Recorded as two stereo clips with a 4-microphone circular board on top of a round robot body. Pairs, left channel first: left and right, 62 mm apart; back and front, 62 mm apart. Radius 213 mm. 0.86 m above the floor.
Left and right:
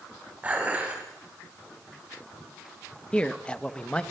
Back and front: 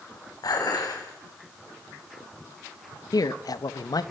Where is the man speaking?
165° left, 1.3 m.